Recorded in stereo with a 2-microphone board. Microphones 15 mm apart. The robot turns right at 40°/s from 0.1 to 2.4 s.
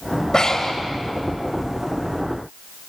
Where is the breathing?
55° left (ahead or behind), 3 m; by 0.8 s 35° left (ahead or behind), 3 m.